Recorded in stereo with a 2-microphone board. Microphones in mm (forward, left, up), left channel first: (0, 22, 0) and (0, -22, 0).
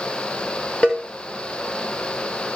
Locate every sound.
0.8 s a cowbell: 30° left (ahead or behind), 6 m